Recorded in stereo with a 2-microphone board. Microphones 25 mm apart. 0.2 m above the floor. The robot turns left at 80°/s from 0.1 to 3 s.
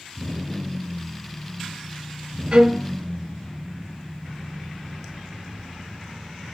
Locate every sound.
2.5 s a violin: 120° right, 0.7 m; by 2.9 s 150° right, 0.7 m